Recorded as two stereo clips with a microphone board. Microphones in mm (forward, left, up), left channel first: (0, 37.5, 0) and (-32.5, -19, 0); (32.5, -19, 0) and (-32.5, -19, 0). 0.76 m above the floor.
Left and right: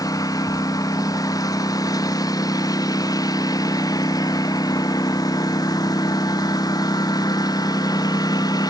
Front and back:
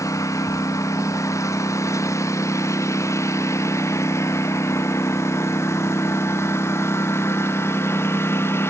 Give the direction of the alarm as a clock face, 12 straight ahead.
No alarm in this recording.